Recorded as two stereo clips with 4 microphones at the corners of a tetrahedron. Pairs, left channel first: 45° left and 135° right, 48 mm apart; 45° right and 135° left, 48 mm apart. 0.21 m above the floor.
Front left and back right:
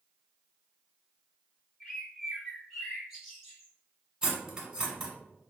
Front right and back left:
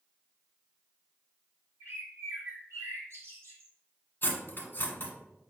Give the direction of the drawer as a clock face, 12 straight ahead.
No drawer in this recording.